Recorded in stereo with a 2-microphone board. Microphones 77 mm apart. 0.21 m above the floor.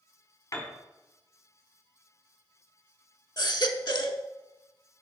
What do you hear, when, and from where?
0.5 s a piano: 45° left (ahead or behind), 1.8 m
3.4 s a baby crying: 65° left (ahead or behind), 0.7 m